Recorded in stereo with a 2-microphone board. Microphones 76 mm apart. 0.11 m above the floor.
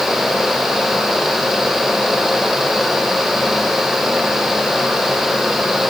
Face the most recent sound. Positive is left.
No sound to turn to.